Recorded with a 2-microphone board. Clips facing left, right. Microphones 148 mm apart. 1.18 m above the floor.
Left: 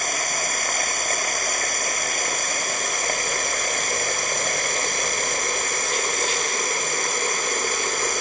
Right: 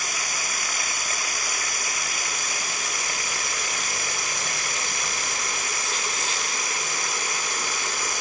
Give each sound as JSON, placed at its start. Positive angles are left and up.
{"t": 0.0, "sound": "running water", "side_deg": 50}